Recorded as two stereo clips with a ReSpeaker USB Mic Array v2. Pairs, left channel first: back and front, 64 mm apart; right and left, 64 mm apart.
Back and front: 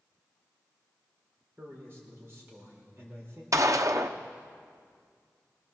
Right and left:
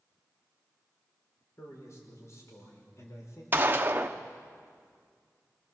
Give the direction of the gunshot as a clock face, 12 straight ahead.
11 o'clock.